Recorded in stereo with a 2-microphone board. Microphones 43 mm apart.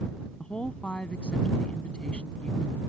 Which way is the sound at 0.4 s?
25° left (ahead or behind).